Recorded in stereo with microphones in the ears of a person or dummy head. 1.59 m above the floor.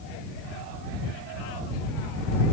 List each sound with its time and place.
Only background noise.